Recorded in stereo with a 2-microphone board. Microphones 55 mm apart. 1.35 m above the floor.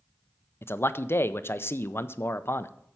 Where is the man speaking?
40° left (ahead or behind), 0.5 m.